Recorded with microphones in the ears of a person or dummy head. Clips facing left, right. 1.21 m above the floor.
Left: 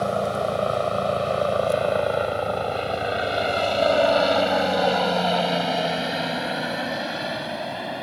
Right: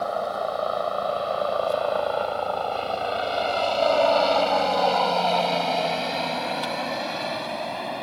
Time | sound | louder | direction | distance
0.0 | a helicopter | left 3 dB | 35° left (ahead or behind) | ?